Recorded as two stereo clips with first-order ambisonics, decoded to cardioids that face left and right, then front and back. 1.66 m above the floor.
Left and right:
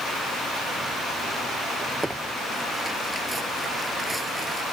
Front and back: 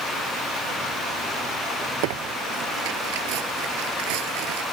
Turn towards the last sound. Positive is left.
turn(degrees=-175)